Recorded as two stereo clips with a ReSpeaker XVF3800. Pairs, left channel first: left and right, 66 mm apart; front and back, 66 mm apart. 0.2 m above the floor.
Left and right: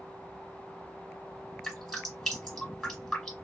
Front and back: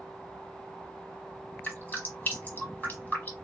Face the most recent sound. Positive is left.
turn(degrees=10)